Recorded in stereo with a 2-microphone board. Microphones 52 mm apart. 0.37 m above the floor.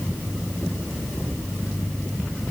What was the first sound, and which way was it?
Only background noise.